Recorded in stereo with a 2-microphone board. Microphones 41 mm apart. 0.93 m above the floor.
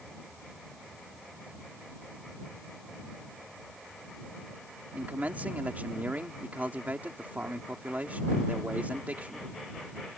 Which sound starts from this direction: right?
A man speaking, at 4.9 s.